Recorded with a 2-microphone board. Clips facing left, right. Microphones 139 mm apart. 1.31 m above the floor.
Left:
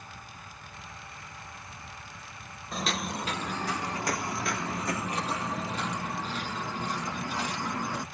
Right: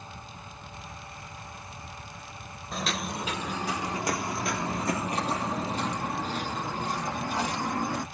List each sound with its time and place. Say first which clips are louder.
2.7 s footsteps: even; centre (ahead or behind), 1.4 m; by 8.0 s 45° right (ahead or behind), 2.5 m